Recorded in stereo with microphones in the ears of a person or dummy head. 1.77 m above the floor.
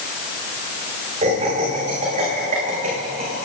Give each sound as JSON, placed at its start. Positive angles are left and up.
{"t": 1.2, "sound": "laughter", "side_deg": -35, "distance_m": 8.0}